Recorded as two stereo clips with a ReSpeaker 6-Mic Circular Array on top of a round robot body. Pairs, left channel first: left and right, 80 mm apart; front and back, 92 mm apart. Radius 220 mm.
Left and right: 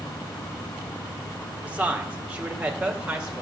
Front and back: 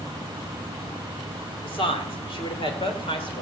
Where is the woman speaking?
20° right, 2 m; by 3.4 s 15° right, 3.5 m.